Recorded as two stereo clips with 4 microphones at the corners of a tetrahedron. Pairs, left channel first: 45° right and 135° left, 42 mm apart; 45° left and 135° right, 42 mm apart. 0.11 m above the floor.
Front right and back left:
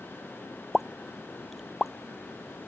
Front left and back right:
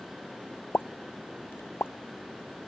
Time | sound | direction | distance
0.7 | a pop | 45° left | ?